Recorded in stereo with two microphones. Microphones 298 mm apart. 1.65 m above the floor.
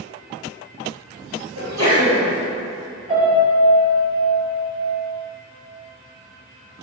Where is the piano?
20° right (ahead or behind), 1.8 m.